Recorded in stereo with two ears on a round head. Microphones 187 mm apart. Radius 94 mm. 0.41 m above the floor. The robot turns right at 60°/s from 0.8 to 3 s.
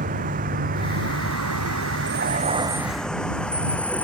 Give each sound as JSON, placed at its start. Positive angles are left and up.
{"t": 0.0, "sound": "a vehicle", "side_deg": -40}